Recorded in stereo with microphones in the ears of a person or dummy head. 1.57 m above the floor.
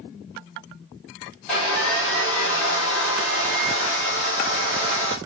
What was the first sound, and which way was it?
Sawing, 5° left (ahead or behind).